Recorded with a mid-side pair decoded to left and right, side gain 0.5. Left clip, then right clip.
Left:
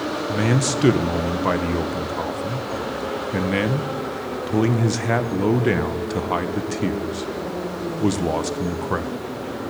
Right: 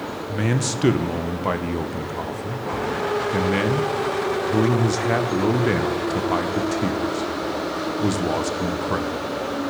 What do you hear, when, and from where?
0.3 s a man speaking: 10° left, 0.9 m